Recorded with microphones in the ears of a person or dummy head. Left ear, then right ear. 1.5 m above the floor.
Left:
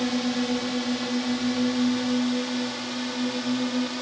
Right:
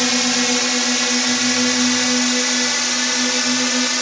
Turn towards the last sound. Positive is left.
turn(degrees=-60)  # may be behind; listen again after turning